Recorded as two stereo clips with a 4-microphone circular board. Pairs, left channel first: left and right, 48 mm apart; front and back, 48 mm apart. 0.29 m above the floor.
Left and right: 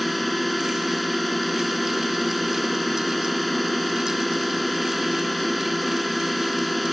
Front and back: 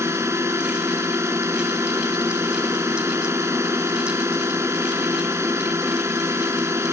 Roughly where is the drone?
Behind.